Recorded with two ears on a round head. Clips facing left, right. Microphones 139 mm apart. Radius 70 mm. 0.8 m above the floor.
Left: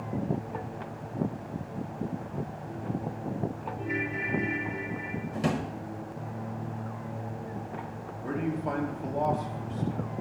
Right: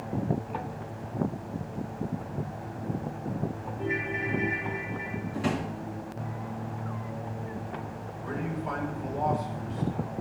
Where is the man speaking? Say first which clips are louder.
Left 3 dB; 55° left (ahead or behind), 1.8 m.